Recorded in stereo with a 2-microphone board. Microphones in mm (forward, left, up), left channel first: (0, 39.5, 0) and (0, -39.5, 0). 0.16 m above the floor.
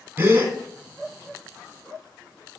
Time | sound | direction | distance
0.2 | a gasp | 25° right (ahead or behind) | 1.4 m